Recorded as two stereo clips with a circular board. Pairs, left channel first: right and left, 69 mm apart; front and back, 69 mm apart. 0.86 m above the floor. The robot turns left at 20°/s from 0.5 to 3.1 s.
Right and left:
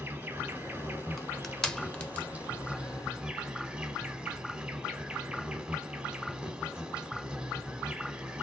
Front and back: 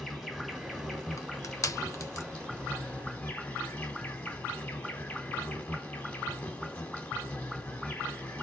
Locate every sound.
0.0 s an insect: 95° left, 0.7 m; by 8.4 s 40° left, 0.7 m
1.2 s crushing: 5° right, 0.6 m; by 2.3 s 25° right, 0.6 m